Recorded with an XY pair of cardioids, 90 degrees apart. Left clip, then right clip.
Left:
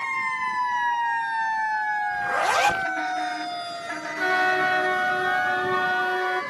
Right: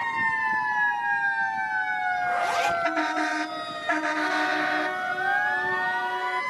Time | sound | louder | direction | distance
2.1 | a zipper | left 3 dB | 50° left | ?
4.2 | a flute | left 3 dB | 55° left | ?